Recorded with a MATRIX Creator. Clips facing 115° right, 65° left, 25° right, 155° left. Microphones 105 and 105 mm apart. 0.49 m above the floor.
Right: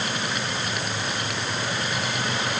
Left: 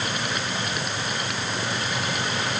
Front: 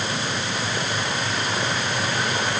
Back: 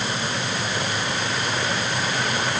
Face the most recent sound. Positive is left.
No sound to turn to.